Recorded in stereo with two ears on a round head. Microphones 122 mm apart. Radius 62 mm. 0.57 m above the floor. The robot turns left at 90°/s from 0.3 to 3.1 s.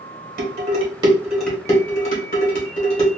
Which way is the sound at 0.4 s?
70° right (ahead or behind).